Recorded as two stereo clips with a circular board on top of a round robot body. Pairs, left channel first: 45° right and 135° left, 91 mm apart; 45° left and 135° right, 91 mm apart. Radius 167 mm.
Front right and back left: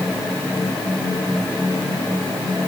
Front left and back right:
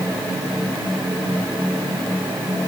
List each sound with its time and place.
Only background noise.